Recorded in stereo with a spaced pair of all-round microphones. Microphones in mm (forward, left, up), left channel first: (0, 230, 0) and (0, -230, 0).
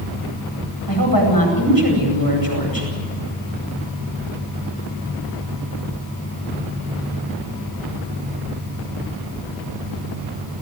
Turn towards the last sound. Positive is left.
turn(degrees=45)  # may be behind; listen again after turning